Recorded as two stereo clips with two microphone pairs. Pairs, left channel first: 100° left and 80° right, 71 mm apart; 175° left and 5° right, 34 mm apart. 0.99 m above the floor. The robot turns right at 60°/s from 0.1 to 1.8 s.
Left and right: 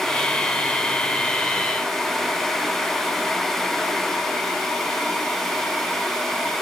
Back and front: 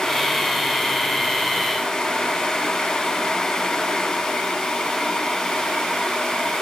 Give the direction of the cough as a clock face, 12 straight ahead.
No cough in this recording.